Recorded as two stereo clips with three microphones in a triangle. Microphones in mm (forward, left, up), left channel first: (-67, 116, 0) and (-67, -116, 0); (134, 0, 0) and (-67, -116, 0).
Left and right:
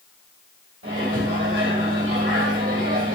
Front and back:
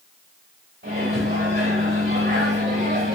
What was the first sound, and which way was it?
A microwave, 105° right.